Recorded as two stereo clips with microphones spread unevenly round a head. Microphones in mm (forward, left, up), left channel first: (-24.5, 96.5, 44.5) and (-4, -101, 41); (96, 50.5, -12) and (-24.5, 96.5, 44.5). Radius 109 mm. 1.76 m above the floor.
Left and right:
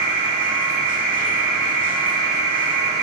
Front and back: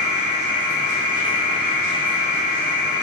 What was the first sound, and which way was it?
A machine running, 20° right.